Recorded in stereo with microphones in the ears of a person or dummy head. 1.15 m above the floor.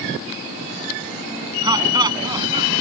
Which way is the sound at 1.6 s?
20° right (ahead or behind).